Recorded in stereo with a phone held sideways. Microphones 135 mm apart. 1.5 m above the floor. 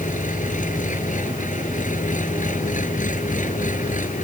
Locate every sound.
0.0 s an engine running: 70° left (ahead or behind)